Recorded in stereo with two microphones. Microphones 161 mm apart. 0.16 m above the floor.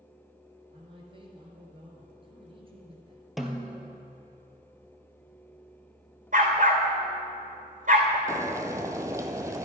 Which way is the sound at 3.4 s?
Centre (ahead or behind).